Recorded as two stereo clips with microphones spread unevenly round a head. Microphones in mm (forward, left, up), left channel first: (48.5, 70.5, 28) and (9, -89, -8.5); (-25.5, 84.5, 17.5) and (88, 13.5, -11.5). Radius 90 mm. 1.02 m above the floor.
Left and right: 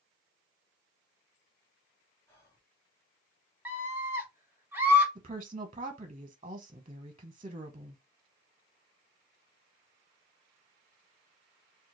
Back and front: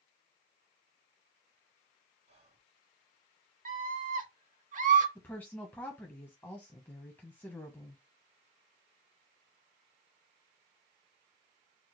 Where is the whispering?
Straight ahead, 2.5 m.